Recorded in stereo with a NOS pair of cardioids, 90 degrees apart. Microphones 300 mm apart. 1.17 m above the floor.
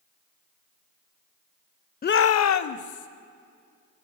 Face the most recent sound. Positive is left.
turn(degrees=70)